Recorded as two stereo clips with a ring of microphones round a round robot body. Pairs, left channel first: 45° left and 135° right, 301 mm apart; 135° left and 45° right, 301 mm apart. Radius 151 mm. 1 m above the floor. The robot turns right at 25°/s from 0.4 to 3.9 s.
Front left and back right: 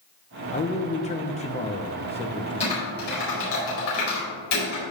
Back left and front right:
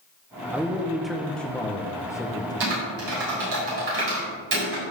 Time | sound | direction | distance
0.5 | a man speaking | 30° left | 0.8 m
2.6 | typing on a keyboard | 25° right | 4.5 m